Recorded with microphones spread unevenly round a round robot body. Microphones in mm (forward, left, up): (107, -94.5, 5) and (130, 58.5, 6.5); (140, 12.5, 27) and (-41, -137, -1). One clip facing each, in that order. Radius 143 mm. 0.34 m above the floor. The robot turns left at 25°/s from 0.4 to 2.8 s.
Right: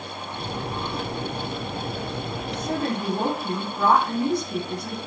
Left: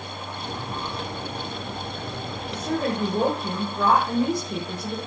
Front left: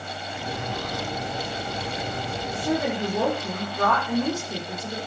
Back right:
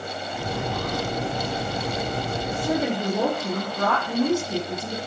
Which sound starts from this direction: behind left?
A woman speaking, at 2.5 s.